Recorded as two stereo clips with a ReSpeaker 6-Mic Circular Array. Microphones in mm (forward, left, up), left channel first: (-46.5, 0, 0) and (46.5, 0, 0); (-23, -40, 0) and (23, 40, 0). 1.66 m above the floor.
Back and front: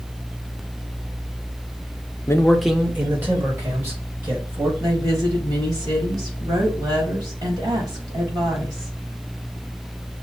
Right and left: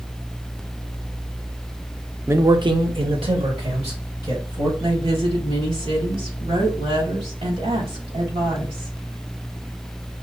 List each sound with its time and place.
2.3 s a man speaking: 125° left, 0.6 m; by 4.7 s 55° left, 3 m
4.8 s a woman speaking: 45° left, 2.5 m